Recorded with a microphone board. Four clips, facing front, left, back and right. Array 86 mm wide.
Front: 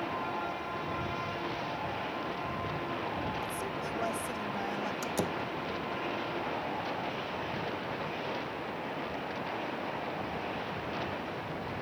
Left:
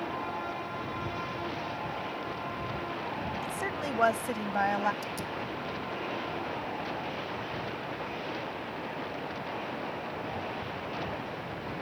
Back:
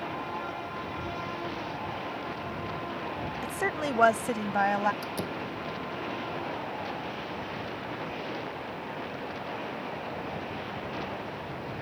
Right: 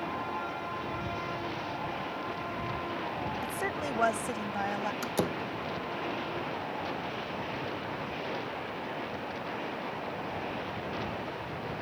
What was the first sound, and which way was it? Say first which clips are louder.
A woman speaking: even, back 5 dB; 170° right.